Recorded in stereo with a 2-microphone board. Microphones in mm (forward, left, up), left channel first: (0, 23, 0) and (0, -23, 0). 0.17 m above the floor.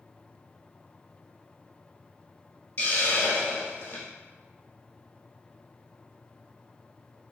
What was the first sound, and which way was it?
A hiss, 55° left (ahead or behind).